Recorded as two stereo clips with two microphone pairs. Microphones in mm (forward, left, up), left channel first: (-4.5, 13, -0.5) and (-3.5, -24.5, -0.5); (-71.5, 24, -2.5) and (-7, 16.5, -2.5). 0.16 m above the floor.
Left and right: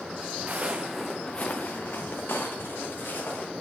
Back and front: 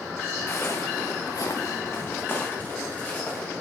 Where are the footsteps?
130° right, 1.1 m; by 3.5 s 105° left, 3.5 m.